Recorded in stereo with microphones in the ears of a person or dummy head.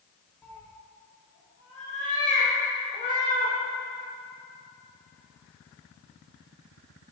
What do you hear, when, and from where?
0.4 s a cat meowing: 10° left (ahead or behind), 1.0 m; by 3.5 s 75° left (ahead or behind), 3 m